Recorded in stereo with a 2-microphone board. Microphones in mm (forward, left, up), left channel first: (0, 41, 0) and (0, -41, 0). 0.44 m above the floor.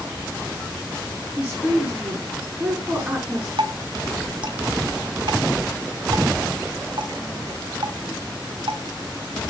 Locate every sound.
1.4 s a woman speaking: 20° right (ahead or behind), 6 m
3.6 s dripping: 70° right (ahead or behind), 2.5 m